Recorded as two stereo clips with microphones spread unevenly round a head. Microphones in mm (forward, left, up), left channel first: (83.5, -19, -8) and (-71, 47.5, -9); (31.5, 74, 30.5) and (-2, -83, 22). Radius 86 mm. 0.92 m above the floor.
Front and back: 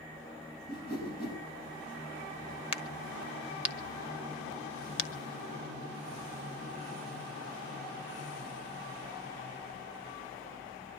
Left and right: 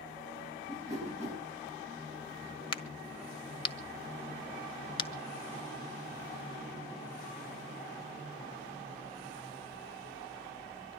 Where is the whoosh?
60° right, 6.5 m.